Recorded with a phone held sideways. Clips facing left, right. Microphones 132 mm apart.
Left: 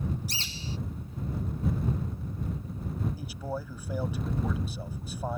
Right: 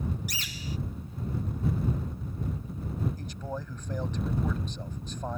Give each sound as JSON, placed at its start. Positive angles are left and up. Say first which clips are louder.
{"t": 0.3, "sound": "a bird", "louder": "even", "side_deg": 30}
{"t": 3.2, "sound": "a man speaking", "louder": "left 1 dB", "side_deg": 10}